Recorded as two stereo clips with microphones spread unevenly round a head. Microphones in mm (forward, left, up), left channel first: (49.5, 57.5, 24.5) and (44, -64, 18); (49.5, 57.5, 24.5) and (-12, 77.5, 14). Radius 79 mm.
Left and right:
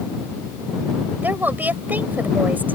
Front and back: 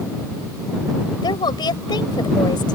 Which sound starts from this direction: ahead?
A woman speaking, at 1.2 s.